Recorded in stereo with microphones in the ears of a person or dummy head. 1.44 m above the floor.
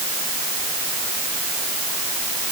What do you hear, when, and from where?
Only background noise.